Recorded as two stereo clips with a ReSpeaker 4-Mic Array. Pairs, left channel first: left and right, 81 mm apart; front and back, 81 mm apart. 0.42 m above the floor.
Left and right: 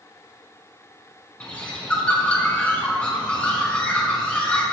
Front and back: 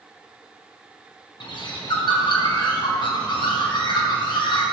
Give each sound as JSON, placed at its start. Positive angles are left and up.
{"t": 1.4, "sound": "a bird", "azimuth_deg": 15, "distance_m": 4.0}